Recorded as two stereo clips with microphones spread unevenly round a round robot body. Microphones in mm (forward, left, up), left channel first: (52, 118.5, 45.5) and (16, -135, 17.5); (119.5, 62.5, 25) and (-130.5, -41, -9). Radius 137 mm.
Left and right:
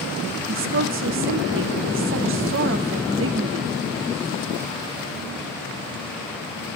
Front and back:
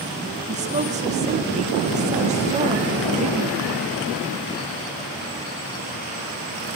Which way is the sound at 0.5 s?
105° right.